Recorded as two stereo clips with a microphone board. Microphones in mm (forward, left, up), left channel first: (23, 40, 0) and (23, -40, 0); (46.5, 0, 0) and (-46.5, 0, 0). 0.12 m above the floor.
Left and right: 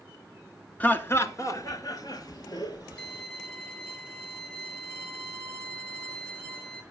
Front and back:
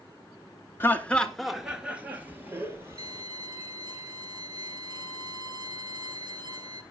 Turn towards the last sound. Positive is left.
turn(degrees=160)